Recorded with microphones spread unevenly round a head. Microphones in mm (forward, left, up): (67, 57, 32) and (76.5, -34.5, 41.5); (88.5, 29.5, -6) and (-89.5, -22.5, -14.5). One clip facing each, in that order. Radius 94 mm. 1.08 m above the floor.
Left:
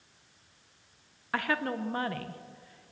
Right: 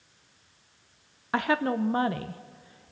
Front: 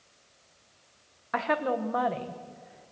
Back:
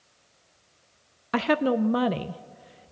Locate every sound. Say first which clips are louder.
1.3 s a woman speaking: right 5 dB, back 6 dB; 150° right, 0.5 m